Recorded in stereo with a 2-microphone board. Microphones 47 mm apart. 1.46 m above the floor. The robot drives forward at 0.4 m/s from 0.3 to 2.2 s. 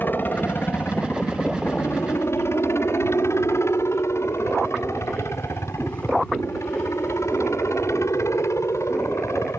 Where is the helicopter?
45° left (ahead or behind); by 9.6 s 80° left.